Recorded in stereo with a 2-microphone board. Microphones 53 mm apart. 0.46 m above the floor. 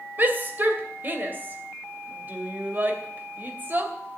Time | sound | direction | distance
0.2 | a shout | 35° right (ahead or behind) | 2.5 m